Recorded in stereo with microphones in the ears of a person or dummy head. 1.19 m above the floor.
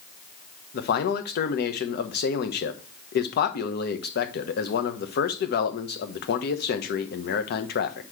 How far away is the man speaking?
About 1.1 m.